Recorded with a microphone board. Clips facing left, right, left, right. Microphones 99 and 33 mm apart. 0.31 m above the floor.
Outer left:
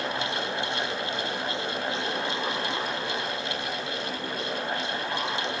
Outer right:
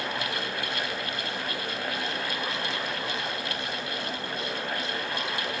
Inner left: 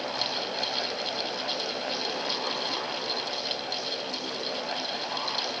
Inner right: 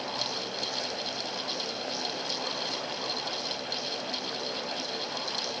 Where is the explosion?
No explosion in this recording.